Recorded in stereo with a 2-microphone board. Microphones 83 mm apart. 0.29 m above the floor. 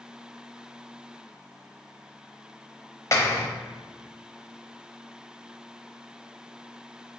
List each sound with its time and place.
3.1 s a clap: 40° left (ahead or behind), 0.8 m